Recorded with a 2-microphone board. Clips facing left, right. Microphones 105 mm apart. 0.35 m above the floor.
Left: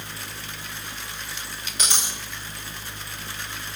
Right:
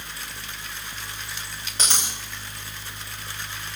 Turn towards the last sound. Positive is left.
turn(degrees=-35)  # may be behind; listen again after turning